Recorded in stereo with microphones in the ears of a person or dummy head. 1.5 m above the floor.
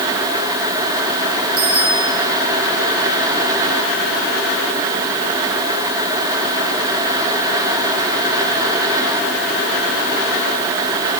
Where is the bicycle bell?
35° right (ahead or behind), 6.5 m.